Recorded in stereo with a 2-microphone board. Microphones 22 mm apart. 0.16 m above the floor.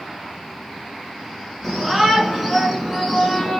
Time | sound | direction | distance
1.6 | a shout | 10° right (ahead or behind) | 2.5 m